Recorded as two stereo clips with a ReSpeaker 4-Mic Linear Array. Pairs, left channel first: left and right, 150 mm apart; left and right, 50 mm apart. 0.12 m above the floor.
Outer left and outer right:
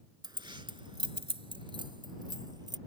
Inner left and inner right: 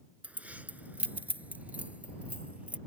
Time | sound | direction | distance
0.2 | keys jangling | 30° right (ahead or behind) | ?